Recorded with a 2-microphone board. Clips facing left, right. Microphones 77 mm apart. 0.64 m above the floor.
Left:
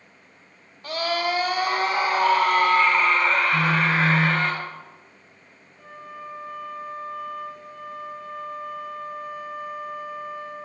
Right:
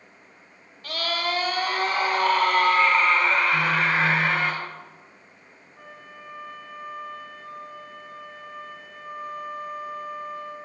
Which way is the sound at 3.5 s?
25° left (ahead or behind).